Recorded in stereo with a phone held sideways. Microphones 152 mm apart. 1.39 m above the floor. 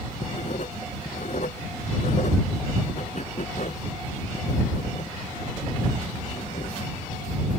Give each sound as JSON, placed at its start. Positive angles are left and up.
{"t": 0.2, "sound": "writing", "side_deg": 55}